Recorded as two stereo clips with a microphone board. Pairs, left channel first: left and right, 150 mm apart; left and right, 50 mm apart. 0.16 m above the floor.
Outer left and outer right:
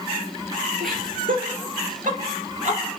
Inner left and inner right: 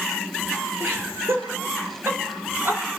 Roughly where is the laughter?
Right.